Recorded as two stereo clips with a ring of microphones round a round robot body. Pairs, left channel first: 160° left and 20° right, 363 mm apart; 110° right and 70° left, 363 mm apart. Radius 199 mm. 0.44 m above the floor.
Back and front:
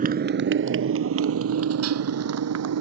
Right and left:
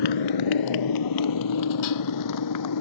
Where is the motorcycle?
90° right; by 2.8 s 70° right.